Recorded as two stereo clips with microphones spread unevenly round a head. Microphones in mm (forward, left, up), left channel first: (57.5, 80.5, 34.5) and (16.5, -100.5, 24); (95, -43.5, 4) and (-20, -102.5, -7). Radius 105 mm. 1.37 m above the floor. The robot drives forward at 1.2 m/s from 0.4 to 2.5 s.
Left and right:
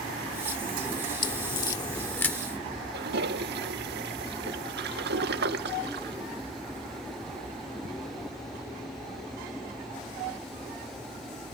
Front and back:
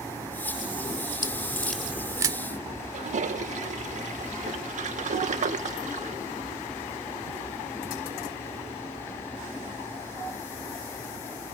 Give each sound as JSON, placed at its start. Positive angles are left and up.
{"t": 1.2, "sound": "a crack", "azimuth_deg": 35}
{"t": 2.9, "sound": "a toilet flushing", "azimuth_deg": -135}